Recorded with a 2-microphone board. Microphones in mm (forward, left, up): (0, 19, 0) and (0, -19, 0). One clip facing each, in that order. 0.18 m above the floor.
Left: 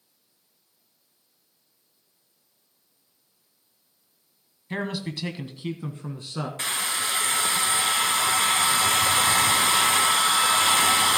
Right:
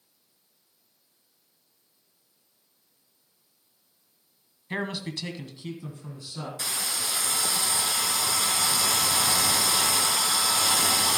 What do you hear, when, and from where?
4.7 s a man speaking: 10° right (ahead or behind), 1.1 m; by 6.5 s 50° left (ahead or behind), 1.7 m
6.6 s a hair dryer: 40° left (ahead or behind), 0.7 m